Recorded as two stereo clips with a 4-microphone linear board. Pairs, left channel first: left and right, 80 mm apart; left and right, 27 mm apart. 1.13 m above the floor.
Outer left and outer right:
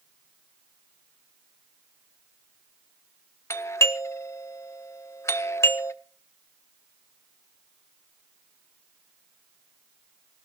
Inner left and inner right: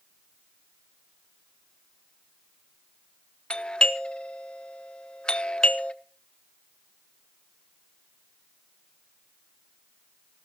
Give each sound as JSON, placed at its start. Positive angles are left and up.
{"t": 3.5, "sound": "a doorbell", "side_deg": 40, "distance_m": 1.3}